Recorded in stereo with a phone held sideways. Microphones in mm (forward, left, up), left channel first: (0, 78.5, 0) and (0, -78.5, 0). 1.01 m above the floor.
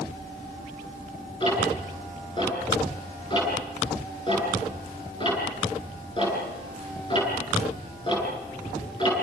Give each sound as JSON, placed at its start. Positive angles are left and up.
{"t": 1.4, "sound": "ticking", "side_deg": 35, "distance_m": 10.0}